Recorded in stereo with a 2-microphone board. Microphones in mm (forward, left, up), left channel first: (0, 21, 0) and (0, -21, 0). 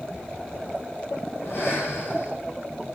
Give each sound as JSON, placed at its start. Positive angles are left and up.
{"t": 1.4, "sound": "breathing", "side_deg": 55, "distance_m": 9.0}